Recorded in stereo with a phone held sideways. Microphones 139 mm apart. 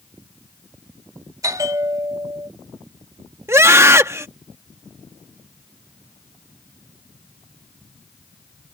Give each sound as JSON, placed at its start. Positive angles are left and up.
{"t": 1.4, "sound": "a bell", "side_deg": -25}
{"t": 3.5, "sound": "a scream", "side_deg": -20}